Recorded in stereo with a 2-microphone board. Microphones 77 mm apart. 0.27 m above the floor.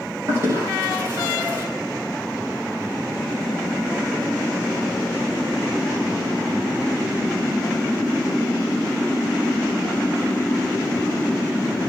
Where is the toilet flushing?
40° right (ahead or behind), 4.5 m.